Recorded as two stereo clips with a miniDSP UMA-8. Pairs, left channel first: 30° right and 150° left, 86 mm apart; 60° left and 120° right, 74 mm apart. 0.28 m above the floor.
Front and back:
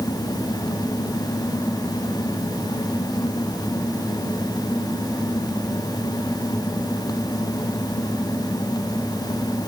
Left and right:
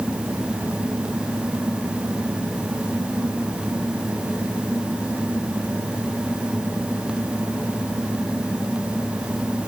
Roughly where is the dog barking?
I don't hear a dog barking.